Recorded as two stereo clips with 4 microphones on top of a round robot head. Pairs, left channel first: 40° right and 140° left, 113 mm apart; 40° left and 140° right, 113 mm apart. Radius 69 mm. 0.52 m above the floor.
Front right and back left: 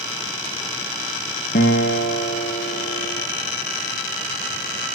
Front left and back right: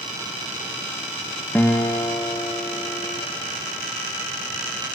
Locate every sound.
1.6 s a guitar: 35° right, 2 m